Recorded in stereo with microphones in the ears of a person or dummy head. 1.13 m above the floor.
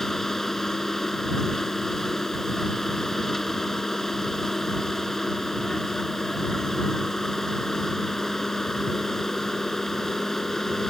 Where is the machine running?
Centre (ahead or behind).